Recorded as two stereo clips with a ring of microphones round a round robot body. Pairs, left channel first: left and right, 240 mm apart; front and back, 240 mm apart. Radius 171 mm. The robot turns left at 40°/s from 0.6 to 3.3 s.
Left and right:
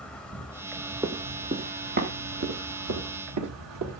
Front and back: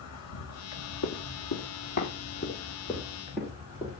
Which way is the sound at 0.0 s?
5° left.